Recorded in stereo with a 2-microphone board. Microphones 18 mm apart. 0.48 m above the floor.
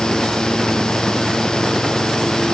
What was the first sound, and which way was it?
Only background noise.